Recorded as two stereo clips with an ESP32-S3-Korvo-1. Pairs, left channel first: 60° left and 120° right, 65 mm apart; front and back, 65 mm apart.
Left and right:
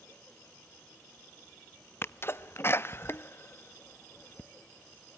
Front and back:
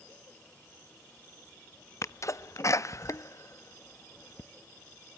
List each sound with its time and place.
2.0 s a sneeze: 15° left, 0.6 m